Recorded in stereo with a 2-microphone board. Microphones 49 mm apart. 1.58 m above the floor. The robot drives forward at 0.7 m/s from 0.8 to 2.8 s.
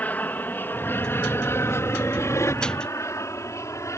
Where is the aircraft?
30° left (ahead or behind); by 4.0 s 75° left (ahead or behind).